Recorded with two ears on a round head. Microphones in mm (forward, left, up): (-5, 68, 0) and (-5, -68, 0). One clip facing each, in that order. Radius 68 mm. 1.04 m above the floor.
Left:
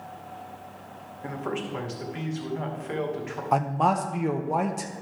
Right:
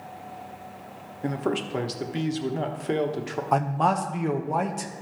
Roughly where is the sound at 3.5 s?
Centre.